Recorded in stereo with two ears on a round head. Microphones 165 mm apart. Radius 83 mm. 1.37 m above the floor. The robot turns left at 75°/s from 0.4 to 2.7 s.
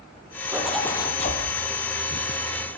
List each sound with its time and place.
0.5 s a zipper: 165° right, 7 m; by 1.4 s 125° left, 7 m